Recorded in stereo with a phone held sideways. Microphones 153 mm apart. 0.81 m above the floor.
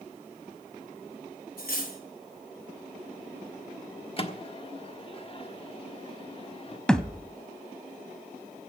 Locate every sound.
1.6 s cutlery clinking: 85° left, 2.5 m
4.2 s a microwave: 35° left (ahead or behind), 1.2 m
6.9 s a thud: 5° left (ahead or behind), 0.7 m